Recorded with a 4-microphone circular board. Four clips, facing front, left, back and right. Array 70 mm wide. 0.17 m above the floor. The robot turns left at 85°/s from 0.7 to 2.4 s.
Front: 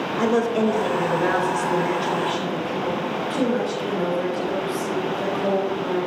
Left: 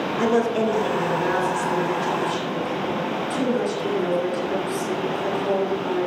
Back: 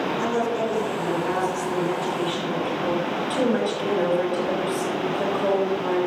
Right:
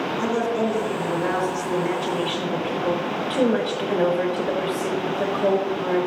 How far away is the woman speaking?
About 4.5 m.